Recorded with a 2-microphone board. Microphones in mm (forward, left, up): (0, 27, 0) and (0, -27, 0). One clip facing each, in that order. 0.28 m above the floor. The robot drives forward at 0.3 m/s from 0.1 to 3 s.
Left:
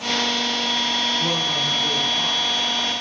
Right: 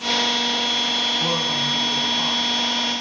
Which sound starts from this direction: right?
A man speaking, at 1.2 s.